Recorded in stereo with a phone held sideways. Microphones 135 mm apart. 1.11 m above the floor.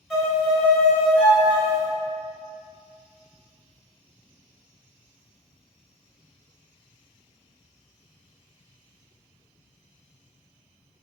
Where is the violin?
Centre (ahead or behind), 1.7 m.